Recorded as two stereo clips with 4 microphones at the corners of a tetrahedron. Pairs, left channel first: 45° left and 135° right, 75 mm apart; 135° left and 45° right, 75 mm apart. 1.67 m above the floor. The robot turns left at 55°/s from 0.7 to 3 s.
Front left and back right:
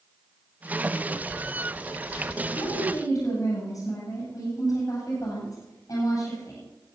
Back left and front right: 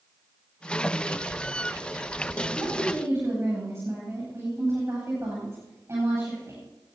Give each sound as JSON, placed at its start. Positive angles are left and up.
{"t": 2.5, "sound": "a woman speaking", "azimuth_deg": 35, "distance_m": 9.5}